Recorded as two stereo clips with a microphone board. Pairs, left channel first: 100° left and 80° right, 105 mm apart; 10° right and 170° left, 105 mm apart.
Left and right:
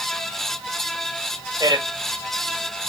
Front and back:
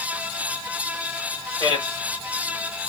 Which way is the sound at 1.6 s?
40° right.